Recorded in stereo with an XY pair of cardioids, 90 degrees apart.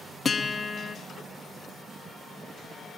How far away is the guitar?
About 2 m.